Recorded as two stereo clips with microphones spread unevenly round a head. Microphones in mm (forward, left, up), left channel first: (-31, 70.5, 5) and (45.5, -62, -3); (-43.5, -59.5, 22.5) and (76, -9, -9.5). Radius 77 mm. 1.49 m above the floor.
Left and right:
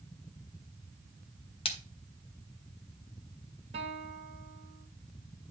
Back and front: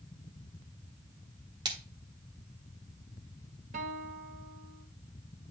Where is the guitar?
5° right, 1.7 m.